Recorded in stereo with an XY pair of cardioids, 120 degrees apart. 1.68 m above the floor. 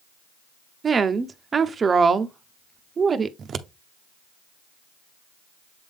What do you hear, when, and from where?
0.8 s a woman speaking: 30° right, 0.8 m
3.4 s scissors: 45° right, 0.7 m